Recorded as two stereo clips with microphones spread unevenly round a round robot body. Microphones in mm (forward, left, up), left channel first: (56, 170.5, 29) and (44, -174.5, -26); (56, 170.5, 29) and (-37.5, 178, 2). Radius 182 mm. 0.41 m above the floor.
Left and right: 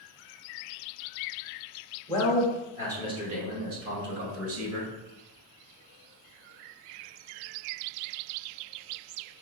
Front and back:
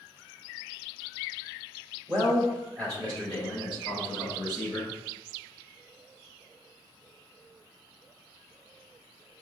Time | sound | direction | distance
2.1 | a man speaking | straight behind | 1.1 m